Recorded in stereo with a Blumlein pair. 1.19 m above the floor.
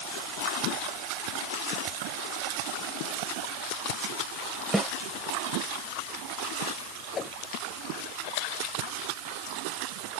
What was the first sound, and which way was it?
A snare drum, 5° right.